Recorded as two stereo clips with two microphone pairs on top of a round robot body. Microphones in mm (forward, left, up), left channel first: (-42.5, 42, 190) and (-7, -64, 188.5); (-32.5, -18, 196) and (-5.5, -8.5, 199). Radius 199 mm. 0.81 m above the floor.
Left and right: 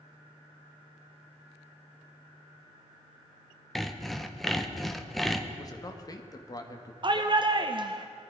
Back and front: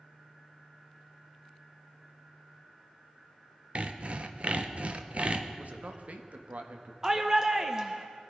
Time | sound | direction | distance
3.8 | sawing | 20° left | 1.2 m
5.6 | a man speaking | 50° left | 1.4 m
7.0 | a shout | 50° right | 0.9 m